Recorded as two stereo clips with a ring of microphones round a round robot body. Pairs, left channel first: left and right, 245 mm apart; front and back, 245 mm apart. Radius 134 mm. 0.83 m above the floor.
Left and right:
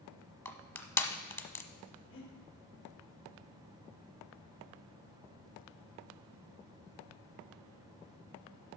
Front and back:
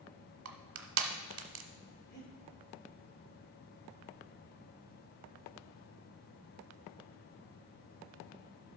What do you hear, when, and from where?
0.5 s crushing: 165° left, 1.0 m
2.1 s breathing: 50° left, 2.5 m